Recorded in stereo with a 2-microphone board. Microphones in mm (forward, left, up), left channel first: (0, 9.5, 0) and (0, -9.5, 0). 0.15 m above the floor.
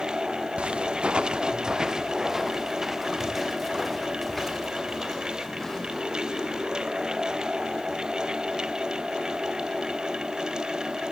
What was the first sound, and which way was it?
Footsteps, 80° right.